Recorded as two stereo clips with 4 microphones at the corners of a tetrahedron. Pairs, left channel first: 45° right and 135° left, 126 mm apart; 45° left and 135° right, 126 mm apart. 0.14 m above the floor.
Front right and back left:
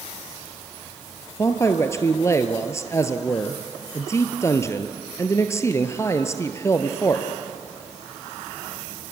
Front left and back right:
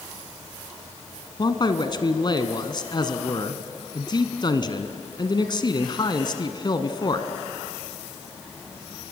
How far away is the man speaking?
About 1.5 m.